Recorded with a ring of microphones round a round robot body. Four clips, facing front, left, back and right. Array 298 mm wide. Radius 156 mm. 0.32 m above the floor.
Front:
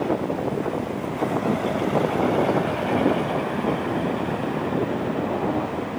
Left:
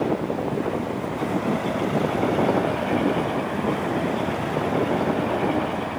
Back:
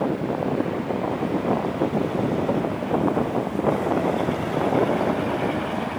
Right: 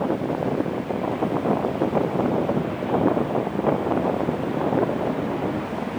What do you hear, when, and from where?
Only background noise.